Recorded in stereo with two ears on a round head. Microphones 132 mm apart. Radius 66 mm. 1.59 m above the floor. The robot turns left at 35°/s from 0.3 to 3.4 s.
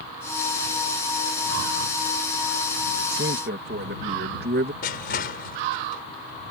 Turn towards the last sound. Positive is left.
turn(degrees=75)  # may be behind; listen again after turning